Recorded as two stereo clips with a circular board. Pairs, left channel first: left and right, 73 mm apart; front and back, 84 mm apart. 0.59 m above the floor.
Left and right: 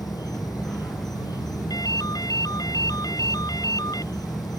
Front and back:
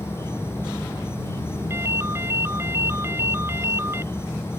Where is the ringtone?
120° left.